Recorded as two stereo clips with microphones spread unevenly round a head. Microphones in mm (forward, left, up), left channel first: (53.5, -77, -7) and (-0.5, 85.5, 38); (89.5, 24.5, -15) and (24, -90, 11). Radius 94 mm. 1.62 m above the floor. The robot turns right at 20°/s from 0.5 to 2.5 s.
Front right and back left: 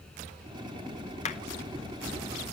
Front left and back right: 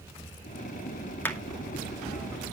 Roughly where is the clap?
Ahead.